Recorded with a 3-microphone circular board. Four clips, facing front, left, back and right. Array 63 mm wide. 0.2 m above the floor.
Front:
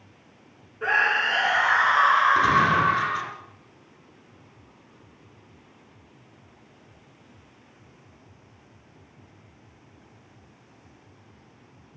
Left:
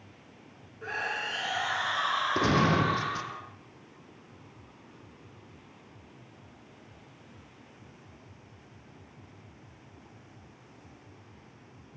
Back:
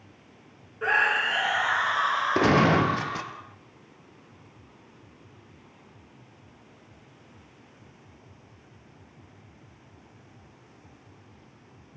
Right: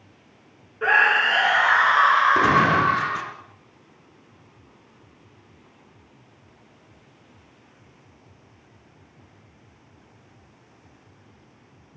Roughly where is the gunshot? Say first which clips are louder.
Right 8 dB, front 1 dB; behind.